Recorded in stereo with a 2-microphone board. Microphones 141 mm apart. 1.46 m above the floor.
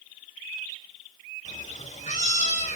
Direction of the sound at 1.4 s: 60° left (ahead or behind).